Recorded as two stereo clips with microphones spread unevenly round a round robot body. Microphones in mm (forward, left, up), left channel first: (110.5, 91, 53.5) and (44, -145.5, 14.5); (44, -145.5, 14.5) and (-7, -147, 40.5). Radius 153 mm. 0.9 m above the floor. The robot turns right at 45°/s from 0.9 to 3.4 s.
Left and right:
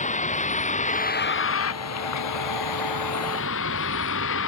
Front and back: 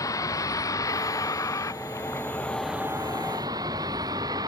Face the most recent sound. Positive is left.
turn(degrees=125)